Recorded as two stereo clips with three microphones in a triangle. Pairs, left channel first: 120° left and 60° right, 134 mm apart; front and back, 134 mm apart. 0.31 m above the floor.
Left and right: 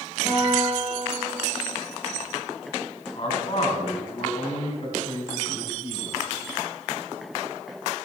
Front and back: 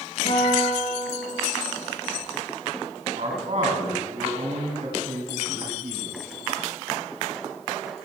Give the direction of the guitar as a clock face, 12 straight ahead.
12 o'clock.